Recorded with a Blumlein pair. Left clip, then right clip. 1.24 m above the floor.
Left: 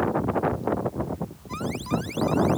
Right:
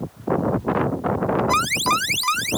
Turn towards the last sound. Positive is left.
turn(degrees=-50)